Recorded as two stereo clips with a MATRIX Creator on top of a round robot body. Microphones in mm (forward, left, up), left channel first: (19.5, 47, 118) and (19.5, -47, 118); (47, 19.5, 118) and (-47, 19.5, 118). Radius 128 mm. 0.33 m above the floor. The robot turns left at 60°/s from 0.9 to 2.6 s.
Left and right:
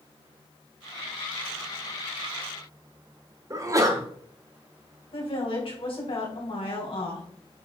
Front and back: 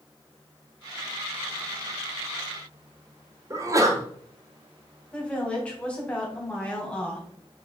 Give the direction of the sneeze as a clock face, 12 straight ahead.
4 o'clock.